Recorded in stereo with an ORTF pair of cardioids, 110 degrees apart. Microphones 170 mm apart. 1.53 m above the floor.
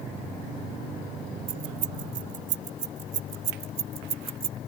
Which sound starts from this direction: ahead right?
Keys jangling, at 1.5 s.